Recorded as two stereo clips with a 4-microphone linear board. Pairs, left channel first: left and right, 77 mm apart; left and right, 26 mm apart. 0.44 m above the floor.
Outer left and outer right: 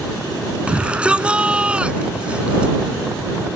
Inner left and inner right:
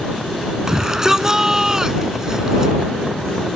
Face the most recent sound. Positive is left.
turn(degrees=-15)  # may be behind; listen again after turning